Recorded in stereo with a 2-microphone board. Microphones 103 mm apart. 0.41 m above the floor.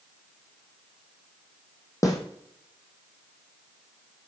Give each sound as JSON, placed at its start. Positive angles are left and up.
{"t": 2.0, "sound": "a snare drum", "side_deg": 35, "distance_m": 2.5}